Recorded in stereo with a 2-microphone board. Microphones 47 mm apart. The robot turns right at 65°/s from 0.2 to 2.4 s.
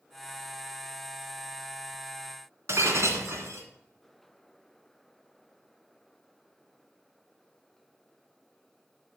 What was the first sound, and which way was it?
Breaking glass, 75° right (ahead or behind).